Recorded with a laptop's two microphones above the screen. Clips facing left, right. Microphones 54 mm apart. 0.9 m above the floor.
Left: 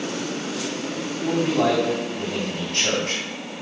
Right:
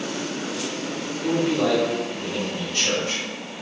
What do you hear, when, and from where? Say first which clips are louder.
1.2 s a man speaking: left 1 dB; 70° left (ahead or behind), 3 m